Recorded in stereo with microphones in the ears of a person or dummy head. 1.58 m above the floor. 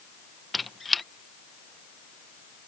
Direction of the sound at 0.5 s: Centre (ahead or behind).